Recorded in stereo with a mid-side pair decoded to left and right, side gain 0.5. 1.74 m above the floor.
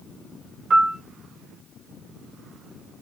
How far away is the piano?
About 2.5 m.